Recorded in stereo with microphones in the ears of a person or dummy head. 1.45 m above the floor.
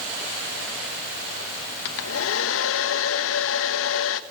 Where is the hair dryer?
75° left (ahead or behind), 1.3 m.